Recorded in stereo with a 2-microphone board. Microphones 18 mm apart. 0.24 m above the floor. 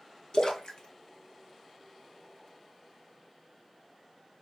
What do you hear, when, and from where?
0.3 s a splash: 50° left (ahead or behind), 0.7 m